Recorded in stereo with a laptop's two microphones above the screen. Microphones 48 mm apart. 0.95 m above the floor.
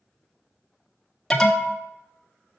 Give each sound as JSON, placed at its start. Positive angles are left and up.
{"t": 1.3, "sound": "an alarm", "side_deg": 10, "distance_m": 0.9}